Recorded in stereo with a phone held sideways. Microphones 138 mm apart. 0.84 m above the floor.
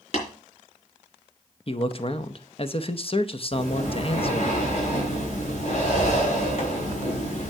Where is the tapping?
50° left (ahead or behind), 4 m.